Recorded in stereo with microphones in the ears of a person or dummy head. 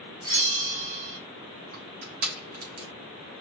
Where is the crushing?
45° right (ahead or behind), 1.9 m.